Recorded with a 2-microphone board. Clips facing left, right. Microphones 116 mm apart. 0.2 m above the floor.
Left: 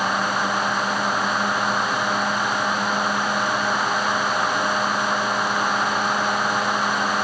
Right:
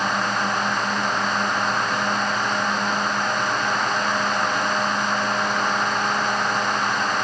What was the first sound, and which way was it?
Only background noise.